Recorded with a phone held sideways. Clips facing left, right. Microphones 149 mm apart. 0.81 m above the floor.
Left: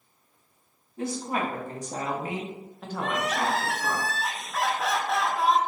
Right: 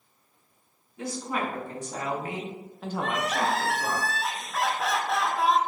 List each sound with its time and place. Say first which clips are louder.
1.0 s a woman speaking: left 2 dB; 55° left (ahead or behind), 1.7 m; by 4.0 s 60° right (ahead or behind), 1.1 m
3.0 s crying: even; centre (ahead or behind), 0.6 m